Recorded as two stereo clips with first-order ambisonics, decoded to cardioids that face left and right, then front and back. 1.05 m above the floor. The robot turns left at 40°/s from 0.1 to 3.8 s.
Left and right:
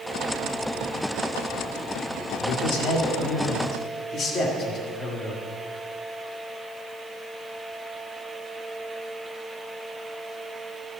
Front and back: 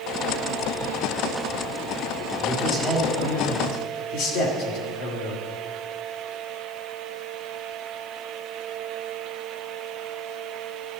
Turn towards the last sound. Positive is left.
turn(degrees=20)